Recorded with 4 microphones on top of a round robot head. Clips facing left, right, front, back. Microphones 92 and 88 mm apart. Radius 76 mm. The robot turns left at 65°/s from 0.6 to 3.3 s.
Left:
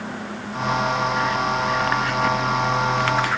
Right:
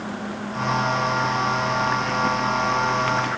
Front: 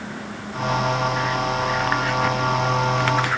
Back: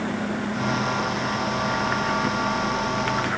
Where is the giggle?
No giggle in this recording.